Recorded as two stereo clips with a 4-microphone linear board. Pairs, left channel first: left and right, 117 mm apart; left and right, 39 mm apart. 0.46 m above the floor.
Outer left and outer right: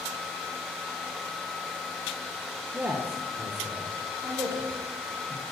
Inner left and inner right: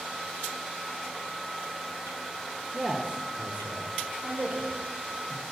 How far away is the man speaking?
About 1.0 m.